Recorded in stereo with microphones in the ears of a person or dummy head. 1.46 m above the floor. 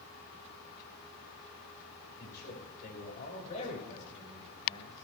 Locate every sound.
2.2 s a man speaking: 60° left (ahead or behind), 6 m; by 5.0 s 25° left (ahead or behind), 7.5 m